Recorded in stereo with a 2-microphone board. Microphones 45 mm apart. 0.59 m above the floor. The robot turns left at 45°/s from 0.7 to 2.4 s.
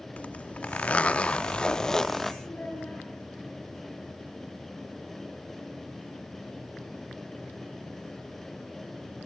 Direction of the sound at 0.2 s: 80° left.